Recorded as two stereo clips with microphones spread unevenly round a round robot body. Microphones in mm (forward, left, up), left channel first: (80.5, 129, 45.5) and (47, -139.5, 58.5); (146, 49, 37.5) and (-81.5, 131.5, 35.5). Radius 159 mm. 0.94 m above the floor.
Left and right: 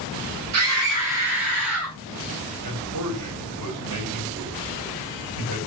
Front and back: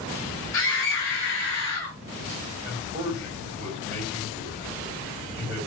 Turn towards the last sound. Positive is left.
turn(degrees=-130)